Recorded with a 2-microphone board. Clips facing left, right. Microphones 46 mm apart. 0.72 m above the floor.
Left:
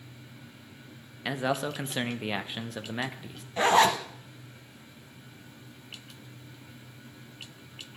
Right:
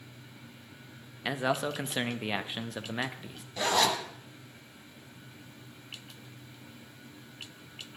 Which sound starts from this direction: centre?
A man speaking, at 1.2 s.